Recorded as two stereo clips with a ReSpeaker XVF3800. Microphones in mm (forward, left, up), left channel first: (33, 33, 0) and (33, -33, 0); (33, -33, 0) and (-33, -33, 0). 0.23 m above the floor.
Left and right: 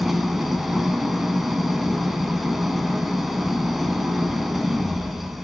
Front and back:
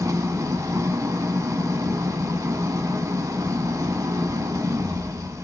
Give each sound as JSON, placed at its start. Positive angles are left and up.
{"t": 0.0, "sound": "an engine running", "azimuth_deg": -175, "distance_m": 0.8}